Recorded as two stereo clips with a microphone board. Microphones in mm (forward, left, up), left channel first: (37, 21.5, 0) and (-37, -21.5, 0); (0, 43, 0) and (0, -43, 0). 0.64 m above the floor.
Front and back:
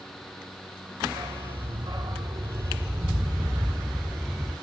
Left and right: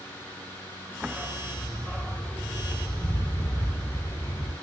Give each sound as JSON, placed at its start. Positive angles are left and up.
{"t": 1.0, "sound": "a dog barking", "azimuth_deg": -175, "distance_m": 3.0}